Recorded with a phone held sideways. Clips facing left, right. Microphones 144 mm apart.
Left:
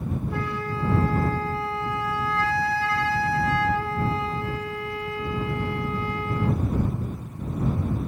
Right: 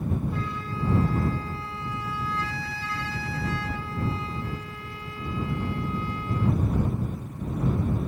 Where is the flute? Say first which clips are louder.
Left 3 dB; 70° left (ahead or behind).